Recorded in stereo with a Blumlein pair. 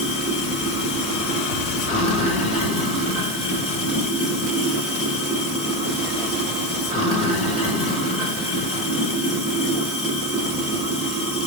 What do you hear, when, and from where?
0.0 s running water: 30° left, 2 m